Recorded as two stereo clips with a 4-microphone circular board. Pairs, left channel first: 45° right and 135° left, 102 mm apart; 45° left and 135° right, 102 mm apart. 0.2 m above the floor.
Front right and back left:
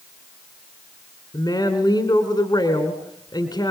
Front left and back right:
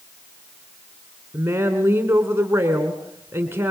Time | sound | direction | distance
1.3 | a woman speaking | 75° right | 2.5 m